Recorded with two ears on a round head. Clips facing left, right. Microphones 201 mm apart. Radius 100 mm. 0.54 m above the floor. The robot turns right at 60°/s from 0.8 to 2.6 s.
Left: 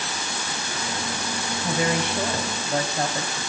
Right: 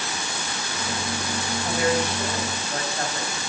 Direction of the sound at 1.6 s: 100° left.